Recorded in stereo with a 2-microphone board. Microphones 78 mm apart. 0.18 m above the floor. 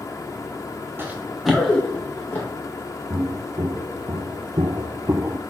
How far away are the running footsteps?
About 1.3 m.